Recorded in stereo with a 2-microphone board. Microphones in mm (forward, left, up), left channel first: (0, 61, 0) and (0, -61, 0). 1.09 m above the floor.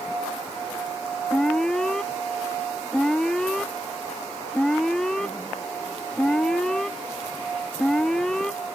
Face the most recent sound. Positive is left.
turn(degrees=5)  # may be behind; listen again after turning